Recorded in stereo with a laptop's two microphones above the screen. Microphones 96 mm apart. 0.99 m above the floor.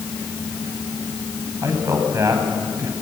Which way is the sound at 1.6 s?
35° right (ahead or behind).